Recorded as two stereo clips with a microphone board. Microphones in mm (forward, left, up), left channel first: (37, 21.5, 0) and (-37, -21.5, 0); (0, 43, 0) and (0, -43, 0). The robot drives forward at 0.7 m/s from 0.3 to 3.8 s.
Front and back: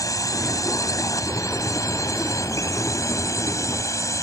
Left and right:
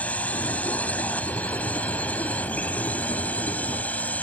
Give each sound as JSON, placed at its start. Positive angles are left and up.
{"t": 0.0, "sound": "a drone", "azimuth_deg": 25}